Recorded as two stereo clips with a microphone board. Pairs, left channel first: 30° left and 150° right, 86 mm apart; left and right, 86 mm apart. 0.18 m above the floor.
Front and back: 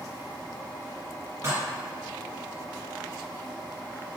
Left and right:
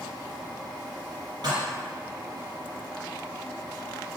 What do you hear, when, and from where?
1.4 s dishes clattering: 100° right, 1.5 m